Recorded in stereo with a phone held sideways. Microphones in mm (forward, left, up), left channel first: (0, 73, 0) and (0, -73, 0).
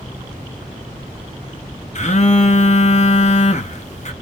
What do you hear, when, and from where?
1.9 s a phone buzzing: 50° left (ahead or behind), 0.7 m